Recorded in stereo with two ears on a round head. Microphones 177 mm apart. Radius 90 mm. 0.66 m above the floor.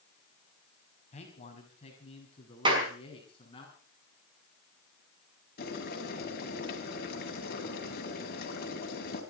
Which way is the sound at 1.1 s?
40° left (ahead or behind).